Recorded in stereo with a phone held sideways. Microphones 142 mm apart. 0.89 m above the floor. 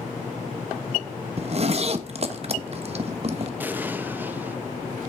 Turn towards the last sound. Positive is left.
turn(degrees=-15)  # may be behind; listen again after turning